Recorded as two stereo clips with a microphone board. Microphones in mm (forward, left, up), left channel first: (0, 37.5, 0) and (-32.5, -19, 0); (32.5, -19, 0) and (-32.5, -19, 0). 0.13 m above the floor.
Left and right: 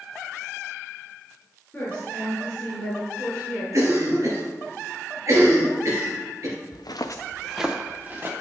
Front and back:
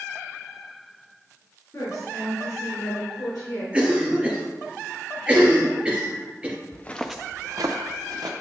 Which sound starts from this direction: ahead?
A woman speaking, at 1.7 s.